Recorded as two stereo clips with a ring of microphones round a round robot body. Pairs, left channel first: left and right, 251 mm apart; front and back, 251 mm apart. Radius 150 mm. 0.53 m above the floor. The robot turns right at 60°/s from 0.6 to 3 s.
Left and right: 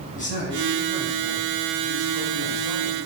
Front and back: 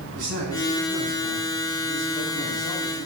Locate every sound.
0.1 s a man speaking: 150° left, 5 m; by 3.1 s 65° right, 5 m